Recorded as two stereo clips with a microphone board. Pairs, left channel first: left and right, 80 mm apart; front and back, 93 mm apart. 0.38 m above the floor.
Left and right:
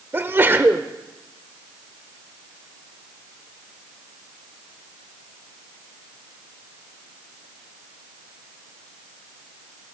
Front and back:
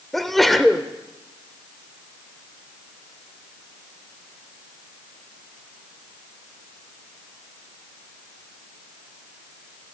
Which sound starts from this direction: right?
A sneeze, at 0.1 s.